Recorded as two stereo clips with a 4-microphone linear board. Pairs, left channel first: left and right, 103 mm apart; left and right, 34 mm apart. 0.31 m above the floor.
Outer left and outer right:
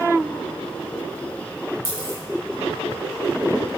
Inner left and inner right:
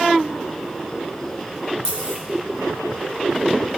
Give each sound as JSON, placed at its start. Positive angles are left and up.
{"t": 1.9, "sound": "a dropped coin", "side_deg": 25, "distance_m": 1.9}